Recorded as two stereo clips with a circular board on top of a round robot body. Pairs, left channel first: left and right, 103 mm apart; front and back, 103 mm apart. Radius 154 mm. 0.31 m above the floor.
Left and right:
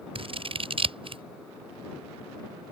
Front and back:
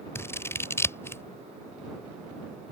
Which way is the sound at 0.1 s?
65° right.